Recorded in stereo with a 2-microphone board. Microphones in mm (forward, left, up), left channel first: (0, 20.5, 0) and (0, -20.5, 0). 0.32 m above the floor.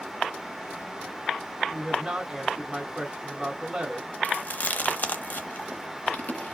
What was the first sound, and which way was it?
A woman speaking, 25° right (ahead or behind).